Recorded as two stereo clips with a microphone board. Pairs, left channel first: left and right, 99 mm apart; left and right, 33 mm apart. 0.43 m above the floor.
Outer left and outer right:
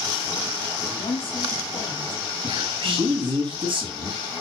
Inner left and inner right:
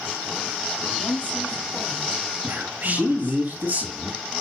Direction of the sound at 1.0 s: 60° left (ahead or behind).